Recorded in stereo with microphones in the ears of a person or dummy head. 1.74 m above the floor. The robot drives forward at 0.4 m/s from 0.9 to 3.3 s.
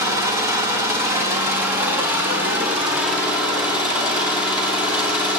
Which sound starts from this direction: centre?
An engine running, at 0.0 s.